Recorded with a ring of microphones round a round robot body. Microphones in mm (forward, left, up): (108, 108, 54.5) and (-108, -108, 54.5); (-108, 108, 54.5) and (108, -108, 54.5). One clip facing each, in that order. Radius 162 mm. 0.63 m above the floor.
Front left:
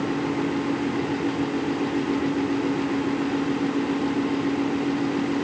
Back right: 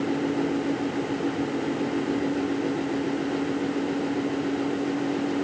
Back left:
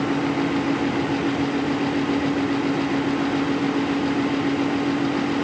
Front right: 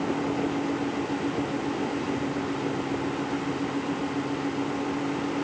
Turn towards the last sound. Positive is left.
No sound to turn to.